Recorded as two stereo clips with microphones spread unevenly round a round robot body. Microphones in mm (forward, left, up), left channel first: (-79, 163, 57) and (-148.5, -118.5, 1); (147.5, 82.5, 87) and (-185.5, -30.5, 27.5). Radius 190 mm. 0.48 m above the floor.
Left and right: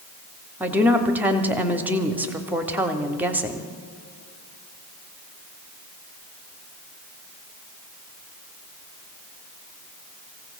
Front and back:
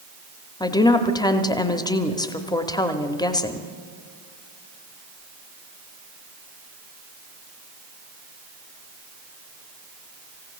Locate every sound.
0.6 s a woman speaking: 70° right, 0.8 m